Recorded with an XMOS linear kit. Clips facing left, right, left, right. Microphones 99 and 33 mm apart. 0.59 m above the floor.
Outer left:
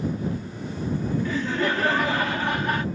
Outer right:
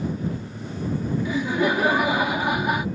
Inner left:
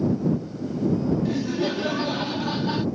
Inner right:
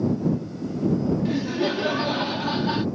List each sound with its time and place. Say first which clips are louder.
1.2 s laughter: outer right 5 dB, inner right 1 dB; 10° right (ahead or behind)